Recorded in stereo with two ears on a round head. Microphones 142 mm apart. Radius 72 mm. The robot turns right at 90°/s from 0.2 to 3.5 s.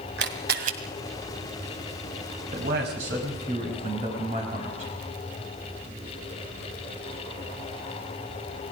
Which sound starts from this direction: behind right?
A man speaking, at 2.5 s.